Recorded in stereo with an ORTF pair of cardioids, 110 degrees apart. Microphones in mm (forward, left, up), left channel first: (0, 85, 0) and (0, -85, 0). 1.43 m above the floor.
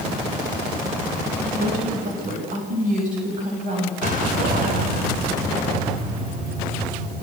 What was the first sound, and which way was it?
A woman speaking, 55° right.